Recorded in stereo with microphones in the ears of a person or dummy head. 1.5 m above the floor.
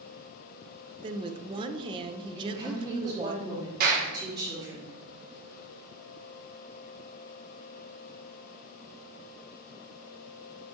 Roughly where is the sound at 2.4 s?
Right.